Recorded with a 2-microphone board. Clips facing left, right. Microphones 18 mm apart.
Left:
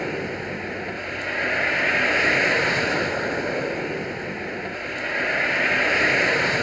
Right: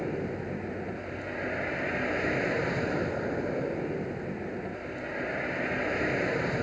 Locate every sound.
0.0 s a vehicle: 70° left (ahead or behind)